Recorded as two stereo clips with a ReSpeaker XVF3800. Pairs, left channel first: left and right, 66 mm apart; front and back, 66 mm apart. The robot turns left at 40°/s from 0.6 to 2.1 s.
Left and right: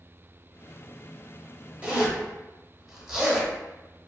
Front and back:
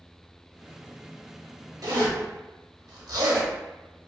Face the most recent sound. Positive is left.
turn(degrees=-170)